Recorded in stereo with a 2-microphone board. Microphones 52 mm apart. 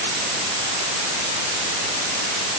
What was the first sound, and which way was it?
Only background noise.